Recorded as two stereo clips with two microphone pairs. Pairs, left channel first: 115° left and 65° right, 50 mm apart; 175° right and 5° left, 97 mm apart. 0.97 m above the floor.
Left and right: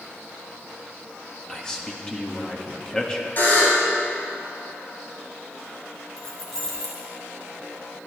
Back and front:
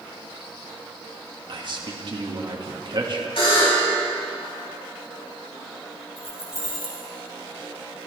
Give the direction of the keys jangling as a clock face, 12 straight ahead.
6 o'clock.